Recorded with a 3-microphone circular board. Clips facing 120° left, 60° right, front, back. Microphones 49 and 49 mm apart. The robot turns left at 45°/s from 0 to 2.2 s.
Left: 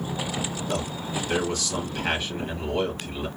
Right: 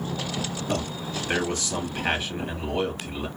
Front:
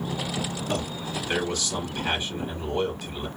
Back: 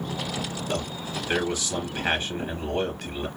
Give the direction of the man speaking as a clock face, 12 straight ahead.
2 o'clock.